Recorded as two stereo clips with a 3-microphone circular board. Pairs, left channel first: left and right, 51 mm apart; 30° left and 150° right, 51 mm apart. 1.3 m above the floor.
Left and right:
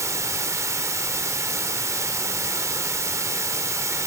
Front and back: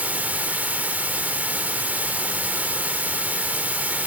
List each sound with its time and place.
0.0 s running water: 90° right, 1.8 m